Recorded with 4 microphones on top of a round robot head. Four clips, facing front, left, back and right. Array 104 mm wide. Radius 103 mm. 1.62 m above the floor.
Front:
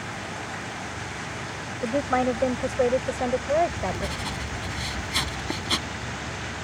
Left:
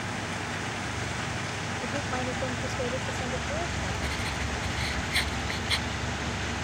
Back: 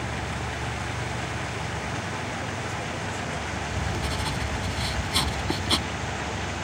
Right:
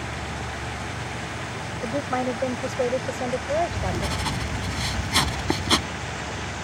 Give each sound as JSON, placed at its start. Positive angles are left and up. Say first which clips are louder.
{"t": 1.8, "sound": "a woman speaking", "louder": "right 8 dB, front 9 dB", "azimuth_deg": -25}
{"t": 3.7, "sound": "writing", "louder": "right 5 dB, front 1 dB", "azimuth_deg": -95}